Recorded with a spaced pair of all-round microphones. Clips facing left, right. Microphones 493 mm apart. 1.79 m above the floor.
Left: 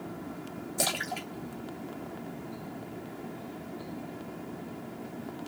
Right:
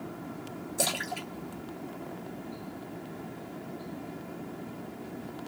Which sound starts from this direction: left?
A splash, at 0.8 s.